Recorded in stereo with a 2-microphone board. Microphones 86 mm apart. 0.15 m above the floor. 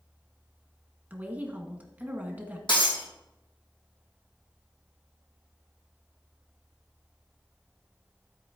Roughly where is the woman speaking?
Right.